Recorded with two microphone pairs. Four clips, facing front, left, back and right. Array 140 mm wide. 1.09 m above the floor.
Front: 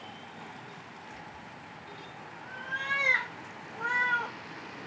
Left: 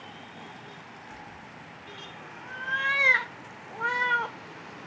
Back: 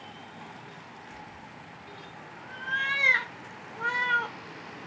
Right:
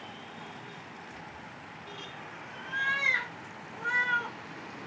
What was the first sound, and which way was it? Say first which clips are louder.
A cat meowing: left 1 dB, back 1 dB; 90° left.